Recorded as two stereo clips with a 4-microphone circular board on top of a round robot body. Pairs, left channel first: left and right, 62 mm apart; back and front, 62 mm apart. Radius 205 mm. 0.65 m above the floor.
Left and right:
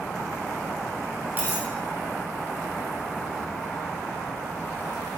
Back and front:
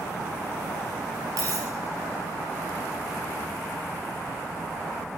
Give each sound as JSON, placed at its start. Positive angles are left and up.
{"t": 1.4, "sound": "a dropped coin", "azimuth_deg": -30, "distance_m": 0.6}